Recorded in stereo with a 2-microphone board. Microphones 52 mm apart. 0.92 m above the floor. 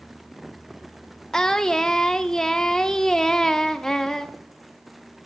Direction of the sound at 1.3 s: 10° left (ahead or behind).